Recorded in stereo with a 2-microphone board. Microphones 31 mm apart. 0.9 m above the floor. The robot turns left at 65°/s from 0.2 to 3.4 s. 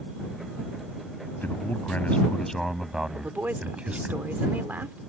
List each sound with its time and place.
1.4 s a man speaking: 90° left; by 4.1 s 40° right
3.1 s a woman speaking: 75° right (ahead or behind); by 5.0 s 80° right